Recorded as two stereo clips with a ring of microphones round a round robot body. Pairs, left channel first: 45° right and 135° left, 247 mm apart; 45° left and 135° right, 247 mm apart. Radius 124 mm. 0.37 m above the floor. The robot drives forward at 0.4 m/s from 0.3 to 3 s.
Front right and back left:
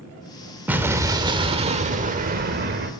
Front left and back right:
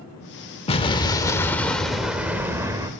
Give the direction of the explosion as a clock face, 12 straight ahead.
10 o'clock.